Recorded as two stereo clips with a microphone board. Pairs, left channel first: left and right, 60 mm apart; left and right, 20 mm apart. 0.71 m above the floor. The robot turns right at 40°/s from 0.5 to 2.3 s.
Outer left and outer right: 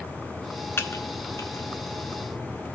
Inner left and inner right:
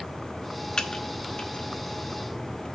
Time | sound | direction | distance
0.8 | typing on a keyboard | 40° left (ahead or behind) | 0.9 m